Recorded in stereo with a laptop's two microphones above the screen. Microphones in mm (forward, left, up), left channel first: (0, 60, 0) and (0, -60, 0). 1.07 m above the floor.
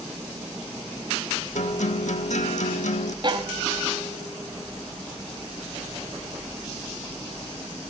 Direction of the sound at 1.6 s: 85° left.